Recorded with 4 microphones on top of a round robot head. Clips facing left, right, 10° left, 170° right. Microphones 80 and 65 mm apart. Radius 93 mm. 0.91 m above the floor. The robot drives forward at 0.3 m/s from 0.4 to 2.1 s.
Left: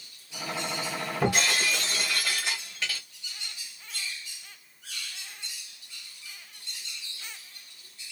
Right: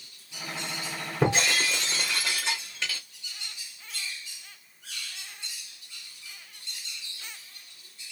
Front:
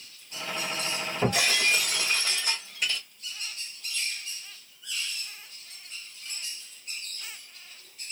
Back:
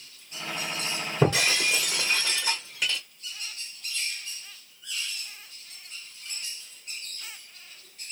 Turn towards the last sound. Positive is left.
turn(degrees=-160)